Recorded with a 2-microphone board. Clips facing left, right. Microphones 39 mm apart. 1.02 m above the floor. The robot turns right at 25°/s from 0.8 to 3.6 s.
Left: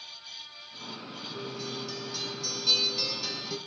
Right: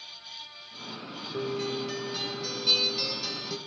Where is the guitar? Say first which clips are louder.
Right 7 dB; 45° right, 1.9 m; by 3.6 s 10° left, 1.9 m.